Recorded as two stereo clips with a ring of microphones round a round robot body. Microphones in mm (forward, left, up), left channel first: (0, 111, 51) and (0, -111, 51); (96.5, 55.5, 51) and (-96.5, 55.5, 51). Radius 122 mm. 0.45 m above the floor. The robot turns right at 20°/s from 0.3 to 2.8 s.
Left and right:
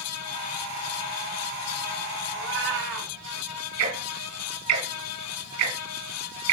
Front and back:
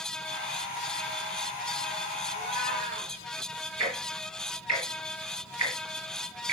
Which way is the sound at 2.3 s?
125° right.